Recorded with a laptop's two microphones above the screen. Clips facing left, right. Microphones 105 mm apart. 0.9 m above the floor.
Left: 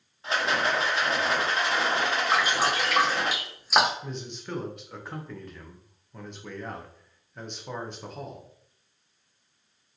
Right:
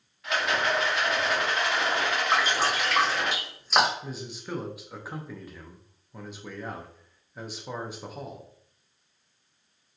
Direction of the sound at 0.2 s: 30° left (ahead or behind).